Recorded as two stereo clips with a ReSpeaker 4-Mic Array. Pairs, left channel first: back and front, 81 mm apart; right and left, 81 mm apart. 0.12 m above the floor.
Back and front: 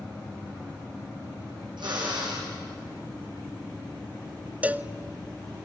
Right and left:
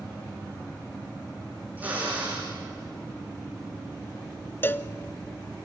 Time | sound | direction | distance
1.8 | a drill | 20° left | 7 m
4.6 | a cowbell | 55° right | 0.6 m